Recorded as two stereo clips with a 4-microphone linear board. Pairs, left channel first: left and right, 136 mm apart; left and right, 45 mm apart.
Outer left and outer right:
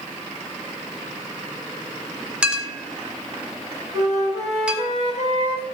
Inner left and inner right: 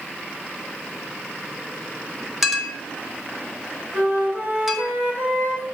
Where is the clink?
5° right (ahead or behind), 1.0 m.